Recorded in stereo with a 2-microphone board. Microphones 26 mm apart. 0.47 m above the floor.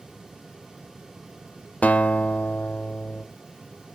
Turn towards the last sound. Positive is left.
turn(degrees=70)  # may be behind; listen again after turning